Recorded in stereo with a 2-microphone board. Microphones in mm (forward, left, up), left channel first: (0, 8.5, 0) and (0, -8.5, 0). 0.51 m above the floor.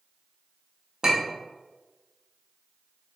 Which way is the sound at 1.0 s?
40° right (ahead or behind).